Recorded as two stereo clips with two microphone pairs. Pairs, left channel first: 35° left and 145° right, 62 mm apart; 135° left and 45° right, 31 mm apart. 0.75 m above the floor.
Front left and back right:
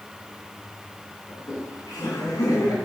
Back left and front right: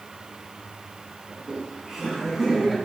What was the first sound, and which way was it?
Laughter, 25° left.